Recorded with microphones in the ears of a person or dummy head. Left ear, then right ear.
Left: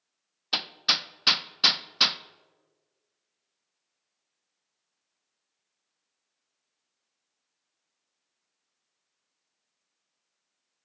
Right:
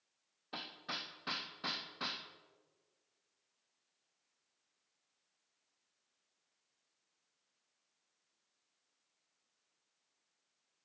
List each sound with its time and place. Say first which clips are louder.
0.5 s hammering: left 18 dB; 75° left (ahead or behind), 0.5 m